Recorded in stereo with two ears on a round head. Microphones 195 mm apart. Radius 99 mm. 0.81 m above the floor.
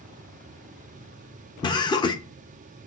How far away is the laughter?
About 0.8 m.